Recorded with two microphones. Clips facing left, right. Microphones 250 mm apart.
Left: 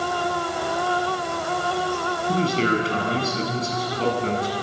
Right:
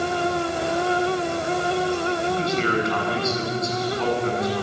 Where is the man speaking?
35° left (ahead or behind), 7 m.